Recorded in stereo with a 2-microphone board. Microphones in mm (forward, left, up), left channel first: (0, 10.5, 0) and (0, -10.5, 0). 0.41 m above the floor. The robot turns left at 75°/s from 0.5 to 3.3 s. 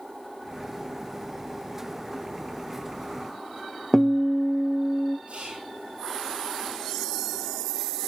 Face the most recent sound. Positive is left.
turn(degrees=-70)  # may be behind; listen again after turning